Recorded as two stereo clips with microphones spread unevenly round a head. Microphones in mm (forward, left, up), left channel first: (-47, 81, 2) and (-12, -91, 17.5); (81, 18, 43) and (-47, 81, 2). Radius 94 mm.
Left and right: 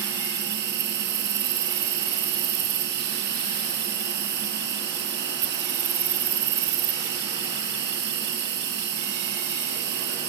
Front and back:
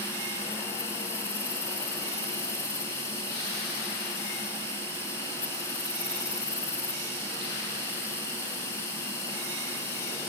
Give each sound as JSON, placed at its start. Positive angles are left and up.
{"t": 0.0, "sound": "an insect", "azimuth_deg": -105}